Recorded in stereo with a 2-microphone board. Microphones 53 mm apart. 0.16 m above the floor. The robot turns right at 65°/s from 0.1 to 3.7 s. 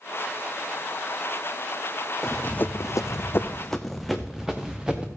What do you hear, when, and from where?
2.2 s running footsteps: 10° right (ahead or behind), 0.6 m; by 5.1 s 15° right (ahead or behind), 1.5 m